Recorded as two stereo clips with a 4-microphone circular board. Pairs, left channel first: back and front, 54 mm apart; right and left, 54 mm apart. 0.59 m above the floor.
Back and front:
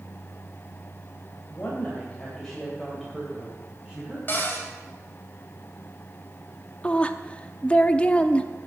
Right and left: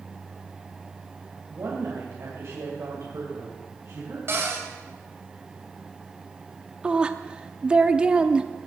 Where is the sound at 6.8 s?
140° left, 0.6 m.